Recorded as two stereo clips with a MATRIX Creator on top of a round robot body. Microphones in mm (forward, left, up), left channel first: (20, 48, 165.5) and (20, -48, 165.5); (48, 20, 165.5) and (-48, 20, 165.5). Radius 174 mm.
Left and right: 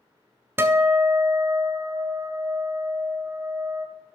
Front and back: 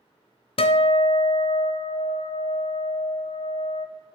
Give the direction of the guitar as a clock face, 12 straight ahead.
1 o'clock.